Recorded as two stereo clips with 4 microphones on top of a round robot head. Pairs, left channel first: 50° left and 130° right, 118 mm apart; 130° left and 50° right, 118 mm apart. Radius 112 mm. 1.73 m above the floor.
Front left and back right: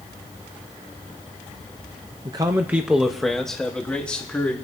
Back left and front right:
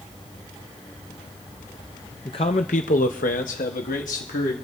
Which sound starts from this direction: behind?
A man speaking, at 2.2 s.